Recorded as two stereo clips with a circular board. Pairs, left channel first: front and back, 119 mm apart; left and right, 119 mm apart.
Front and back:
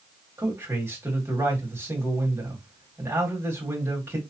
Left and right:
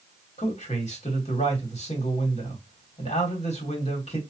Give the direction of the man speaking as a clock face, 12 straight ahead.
8 o'clock.